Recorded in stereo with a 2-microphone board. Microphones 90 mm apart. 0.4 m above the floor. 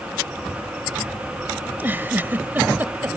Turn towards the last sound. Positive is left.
turn(degrees=-20)  # may be behind; listen again after turning